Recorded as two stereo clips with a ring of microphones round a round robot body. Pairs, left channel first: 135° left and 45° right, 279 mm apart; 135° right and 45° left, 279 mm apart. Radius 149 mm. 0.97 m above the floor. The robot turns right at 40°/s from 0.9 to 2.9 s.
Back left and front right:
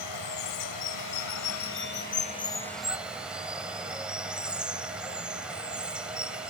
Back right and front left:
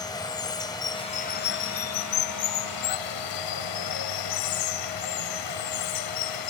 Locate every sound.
0.0 s running water: 150° left; by 6.5 s 130° right